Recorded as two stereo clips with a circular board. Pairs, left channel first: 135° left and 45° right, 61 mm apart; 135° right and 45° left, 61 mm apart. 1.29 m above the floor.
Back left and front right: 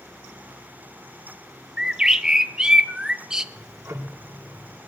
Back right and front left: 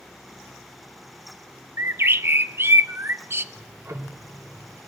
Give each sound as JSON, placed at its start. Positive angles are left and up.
{"t": 1.8, "sound": "a bird", "azimuth_deg": 30, "distance_m": 0.7}
{"t": 3.5, "sound": "ticking", "azimuth_deg": 5, "distance_m": 1.9}